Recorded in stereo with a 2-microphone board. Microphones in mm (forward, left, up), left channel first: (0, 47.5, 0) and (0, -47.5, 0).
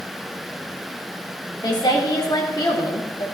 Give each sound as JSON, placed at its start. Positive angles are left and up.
{"t": 1.6, "sound": "a woman speaking", "side_deg": 45, "distance_m": 2.5}